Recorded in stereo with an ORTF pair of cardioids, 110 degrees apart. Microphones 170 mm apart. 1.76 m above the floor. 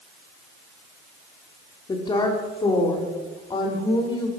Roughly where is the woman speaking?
Ahead left.